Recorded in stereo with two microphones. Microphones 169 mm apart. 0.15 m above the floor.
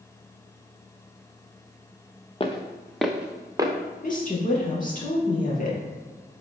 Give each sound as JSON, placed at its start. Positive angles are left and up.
{"t": 2.4, "sound": "footsteps", "side_deg": 35, "distance_m": 1.2}
{"t": 4.0, "sound": "a woman speaking", "side_deg": 50, "distance_m": 3.0}